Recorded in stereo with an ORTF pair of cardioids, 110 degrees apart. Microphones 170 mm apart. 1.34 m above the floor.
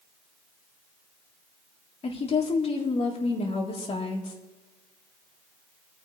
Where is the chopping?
I don't hear chopping.